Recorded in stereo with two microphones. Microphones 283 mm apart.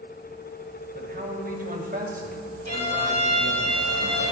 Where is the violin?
60° right (ahead or behind), 4 m.